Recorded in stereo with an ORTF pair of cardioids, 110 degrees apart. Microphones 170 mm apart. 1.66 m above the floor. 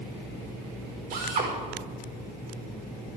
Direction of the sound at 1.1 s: 55° right.